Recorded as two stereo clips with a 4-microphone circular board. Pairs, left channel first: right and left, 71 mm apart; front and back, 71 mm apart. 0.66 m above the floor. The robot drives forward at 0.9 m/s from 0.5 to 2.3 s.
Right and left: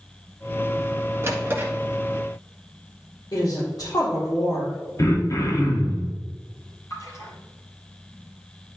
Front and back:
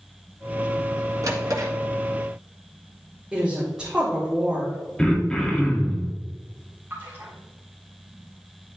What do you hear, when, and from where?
1.2 s a drawer: 145° left, 1.7 m; by 1.7 s 150° left, 2 m
3.3 s a woman speaking: 100° right, 2 m
5.0 s throat clearing: 80° right, 1.3 m
6.9 s a splash: 125° right, 3 m